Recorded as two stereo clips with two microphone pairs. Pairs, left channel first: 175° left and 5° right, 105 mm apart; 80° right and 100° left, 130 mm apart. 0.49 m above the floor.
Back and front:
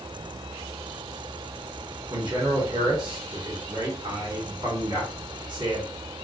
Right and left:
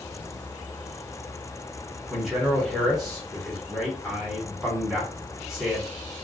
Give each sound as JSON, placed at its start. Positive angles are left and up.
{"t": 2.1, "sound": "a man speaking", "azimuth_deg": 20, "distance_m": 1.3}